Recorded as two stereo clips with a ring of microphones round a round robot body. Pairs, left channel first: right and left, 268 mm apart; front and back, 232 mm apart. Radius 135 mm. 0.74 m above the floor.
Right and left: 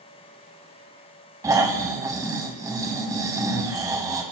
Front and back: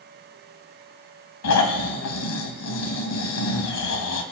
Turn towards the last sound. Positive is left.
turn(degrees=10)